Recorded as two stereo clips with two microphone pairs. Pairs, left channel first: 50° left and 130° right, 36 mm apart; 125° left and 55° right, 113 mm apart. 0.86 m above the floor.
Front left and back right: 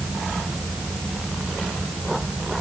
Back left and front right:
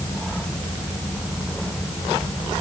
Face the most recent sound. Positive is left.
No sound to turn to.